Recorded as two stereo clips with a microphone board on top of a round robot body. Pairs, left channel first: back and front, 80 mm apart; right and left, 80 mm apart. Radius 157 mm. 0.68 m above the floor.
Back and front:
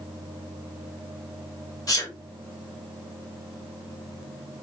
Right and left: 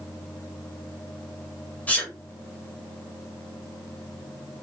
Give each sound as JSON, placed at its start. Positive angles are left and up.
{"t": 1.9, "sound": "a sneeze", "azimuth_deg": -155, "distance_m": 1.6}